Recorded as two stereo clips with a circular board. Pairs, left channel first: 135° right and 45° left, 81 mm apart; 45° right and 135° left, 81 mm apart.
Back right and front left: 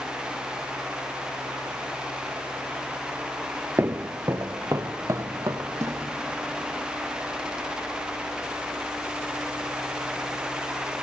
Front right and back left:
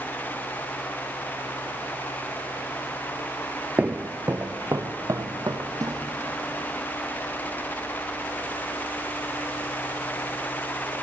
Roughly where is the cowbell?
I don't hear a cowbell.